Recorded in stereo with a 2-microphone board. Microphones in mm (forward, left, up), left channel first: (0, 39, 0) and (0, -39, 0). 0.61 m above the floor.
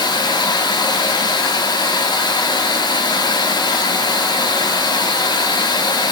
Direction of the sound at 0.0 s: 65° left (ahead or behind).